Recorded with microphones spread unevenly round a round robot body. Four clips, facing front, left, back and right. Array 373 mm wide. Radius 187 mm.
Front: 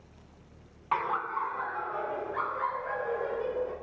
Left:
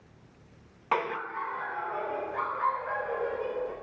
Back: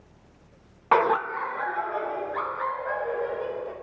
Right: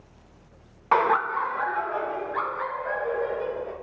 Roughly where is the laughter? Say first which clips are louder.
Right 9 dB, back 8 dB; behind.